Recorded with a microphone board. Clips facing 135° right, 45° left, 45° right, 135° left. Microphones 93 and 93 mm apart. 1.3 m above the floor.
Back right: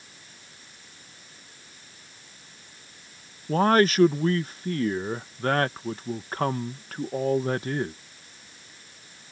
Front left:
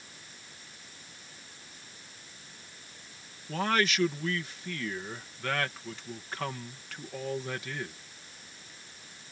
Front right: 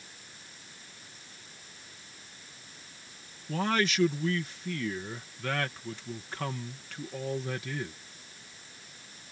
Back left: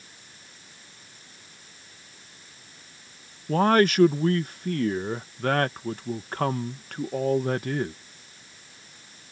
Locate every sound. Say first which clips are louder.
3.5 s a man speaking: back right 9 dB, back left 9 dB; 175° left